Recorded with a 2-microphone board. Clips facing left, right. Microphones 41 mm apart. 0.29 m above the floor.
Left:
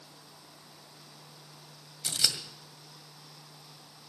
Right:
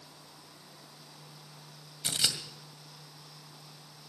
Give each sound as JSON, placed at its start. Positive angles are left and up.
{"t": 2.0, "sound": "scissors", "side_deg": -30, "distance_m": 1.9}